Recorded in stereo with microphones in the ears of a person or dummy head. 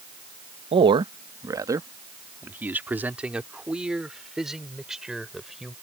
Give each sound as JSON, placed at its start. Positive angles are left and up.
{"t": 0.7, "sound": "a man speaking", "side_deg": -30}